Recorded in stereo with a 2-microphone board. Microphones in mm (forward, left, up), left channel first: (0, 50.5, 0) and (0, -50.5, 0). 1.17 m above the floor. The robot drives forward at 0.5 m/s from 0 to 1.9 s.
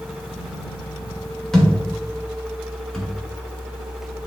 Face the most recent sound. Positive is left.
turn(degrees=5)  # may be behind; listen again after turning